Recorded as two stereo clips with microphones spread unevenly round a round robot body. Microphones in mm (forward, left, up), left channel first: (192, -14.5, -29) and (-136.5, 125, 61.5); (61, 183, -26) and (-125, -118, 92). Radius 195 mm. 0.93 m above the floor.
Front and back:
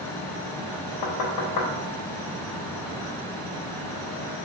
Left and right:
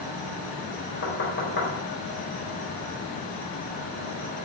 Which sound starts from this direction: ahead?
Knocking, at 1.0 s.